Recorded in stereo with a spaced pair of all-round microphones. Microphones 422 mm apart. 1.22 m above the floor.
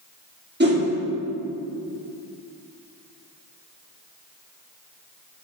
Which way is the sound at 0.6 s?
25° right (ahead or behind).